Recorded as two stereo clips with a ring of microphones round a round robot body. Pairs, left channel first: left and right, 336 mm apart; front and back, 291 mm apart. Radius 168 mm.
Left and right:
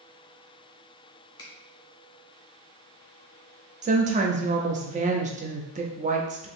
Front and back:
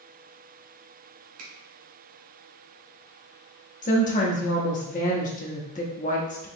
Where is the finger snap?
165° left, 1.2 m.